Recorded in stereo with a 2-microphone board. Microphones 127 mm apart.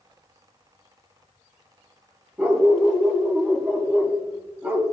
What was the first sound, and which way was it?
A dog barking, 15° right (ahead or behind).